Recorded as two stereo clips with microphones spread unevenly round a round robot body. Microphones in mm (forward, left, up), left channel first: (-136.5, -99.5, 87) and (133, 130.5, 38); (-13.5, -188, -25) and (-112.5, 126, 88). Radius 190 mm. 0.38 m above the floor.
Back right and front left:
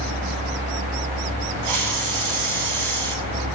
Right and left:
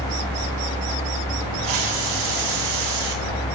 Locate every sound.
1.6 s a hiss: 75° left, 2 m